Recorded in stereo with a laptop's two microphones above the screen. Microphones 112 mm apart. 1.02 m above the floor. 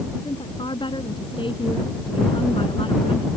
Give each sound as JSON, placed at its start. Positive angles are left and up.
{"t": 0.2, "sound": "a woman speaking", "side_deg": 45}